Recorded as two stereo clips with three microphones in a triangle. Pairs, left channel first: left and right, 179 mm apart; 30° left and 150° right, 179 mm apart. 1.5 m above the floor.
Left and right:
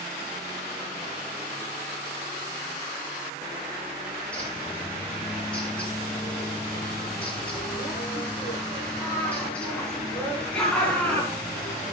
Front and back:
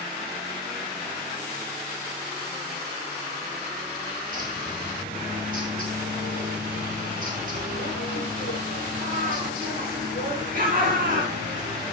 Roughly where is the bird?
Behind.